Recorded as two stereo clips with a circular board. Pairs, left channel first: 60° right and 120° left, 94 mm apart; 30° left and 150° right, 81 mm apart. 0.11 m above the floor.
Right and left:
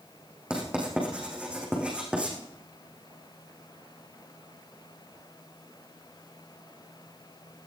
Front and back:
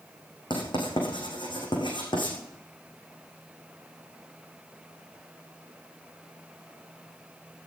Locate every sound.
0.5 s writing: 40° left, 6 m